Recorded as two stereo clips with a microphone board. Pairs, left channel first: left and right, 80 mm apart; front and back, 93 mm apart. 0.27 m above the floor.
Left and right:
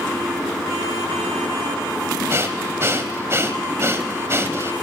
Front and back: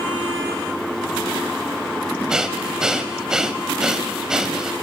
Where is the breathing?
105° right, 1.3 m.